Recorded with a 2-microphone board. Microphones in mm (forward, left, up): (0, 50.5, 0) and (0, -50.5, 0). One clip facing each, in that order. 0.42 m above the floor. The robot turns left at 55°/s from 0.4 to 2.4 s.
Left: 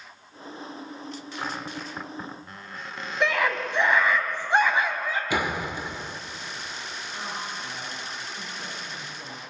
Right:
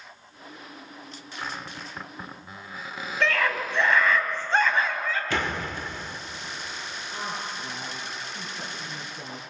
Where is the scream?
15° left (ahead or behind), 3 m.